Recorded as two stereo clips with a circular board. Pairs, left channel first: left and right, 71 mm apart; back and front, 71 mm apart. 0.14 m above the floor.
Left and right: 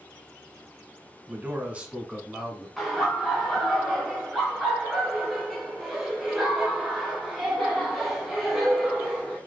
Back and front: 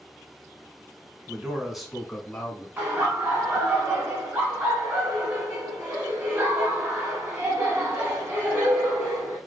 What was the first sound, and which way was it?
A man speaking, 55° right.